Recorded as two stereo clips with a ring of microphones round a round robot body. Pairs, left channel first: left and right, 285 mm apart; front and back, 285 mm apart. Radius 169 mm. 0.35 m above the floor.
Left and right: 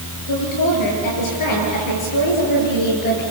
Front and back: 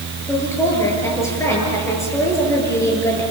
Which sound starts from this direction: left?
A woman speaking, at 0.3 s.